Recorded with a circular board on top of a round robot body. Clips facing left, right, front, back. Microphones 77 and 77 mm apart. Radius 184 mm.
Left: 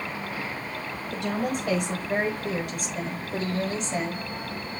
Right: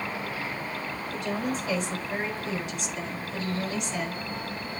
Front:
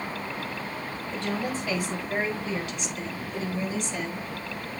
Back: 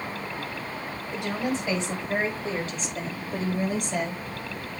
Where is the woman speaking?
105° left, 4.5 m; by 4.2 s 155° left, 4 m.